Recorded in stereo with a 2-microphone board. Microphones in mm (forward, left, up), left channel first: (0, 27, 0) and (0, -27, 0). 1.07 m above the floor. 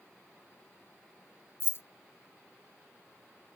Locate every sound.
1.6 s keys jangling: 45° left (ahead or behind), 0.5 m